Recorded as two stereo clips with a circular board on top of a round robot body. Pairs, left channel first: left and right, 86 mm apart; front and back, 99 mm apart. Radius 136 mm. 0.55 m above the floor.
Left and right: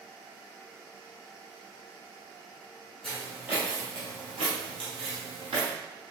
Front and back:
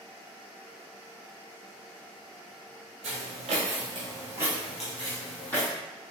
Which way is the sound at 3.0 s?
Straight behind.